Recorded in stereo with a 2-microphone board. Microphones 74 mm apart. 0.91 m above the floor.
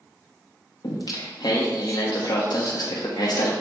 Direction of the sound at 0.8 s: 70° left (ahead or behind).